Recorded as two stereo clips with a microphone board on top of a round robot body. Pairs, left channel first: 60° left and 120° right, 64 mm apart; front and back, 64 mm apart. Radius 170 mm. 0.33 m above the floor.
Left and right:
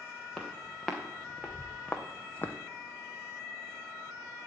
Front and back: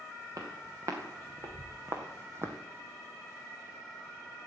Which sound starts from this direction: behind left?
Footsteps, at 0.3 s.